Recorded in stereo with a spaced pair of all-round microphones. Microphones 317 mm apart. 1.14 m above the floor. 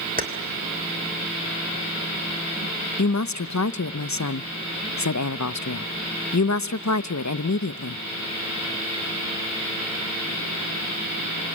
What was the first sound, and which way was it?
Keys jangling, 25° right (ahead or behind).